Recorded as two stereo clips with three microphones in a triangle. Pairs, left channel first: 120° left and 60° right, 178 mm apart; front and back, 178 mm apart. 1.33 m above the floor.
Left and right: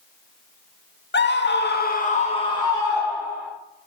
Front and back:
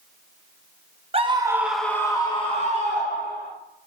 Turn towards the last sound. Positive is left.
turn(degrees=35)